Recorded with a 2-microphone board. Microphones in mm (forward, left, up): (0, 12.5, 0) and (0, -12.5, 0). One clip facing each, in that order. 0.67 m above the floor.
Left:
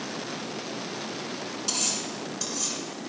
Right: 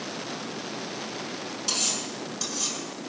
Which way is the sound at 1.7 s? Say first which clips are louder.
Right 2 dB; 10° right (ahead or behind).